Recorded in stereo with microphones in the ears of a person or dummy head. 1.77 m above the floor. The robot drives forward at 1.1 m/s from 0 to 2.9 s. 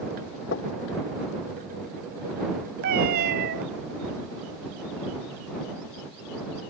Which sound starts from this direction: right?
A cat meowing, at 2.8 s.